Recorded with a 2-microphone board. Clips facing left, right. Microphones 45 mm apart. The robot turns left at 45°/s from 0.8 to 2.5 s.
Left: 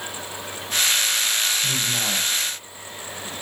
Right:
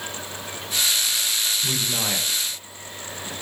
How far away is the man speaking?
About 3 m.